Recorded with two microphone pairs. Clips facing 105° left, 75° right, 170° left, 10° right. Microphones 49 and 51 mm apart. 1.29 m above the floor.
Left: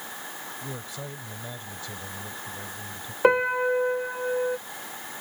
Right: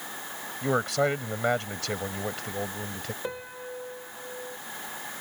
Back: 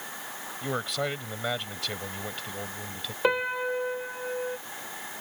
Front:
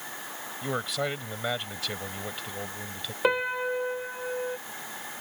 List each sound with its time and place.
0.6 s a man speaking: 100° right
3.2 s a piano: 75° left